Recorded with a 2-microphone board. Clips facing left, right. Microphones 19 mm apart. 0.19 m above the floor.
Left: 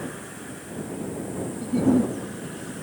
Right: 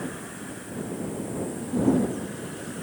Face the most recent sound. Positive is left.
turn(degrees=55)  # may be behind; listen again after turning